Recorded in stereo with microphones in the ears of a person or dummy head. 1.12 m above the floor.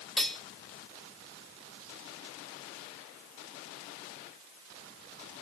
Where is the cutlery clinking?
Centre (ahead or behind), 2.5 m.